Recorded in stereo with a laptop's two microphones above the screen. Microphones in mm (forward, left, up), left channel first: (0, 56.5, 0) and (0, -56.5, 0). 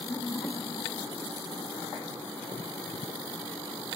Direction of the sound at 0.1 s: 25° left (ahead or behind).